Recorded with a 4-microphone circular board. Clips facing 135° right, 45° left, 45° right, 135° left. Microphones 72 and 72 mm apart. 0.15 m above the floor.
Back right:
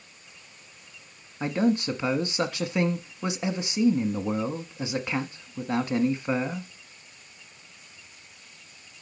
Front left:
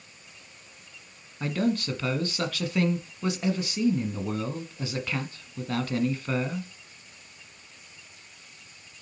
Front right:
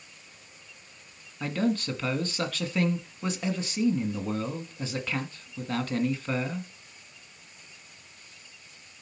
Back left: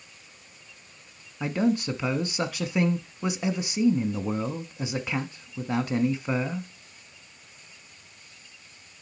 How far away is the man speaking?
About 1.2 m.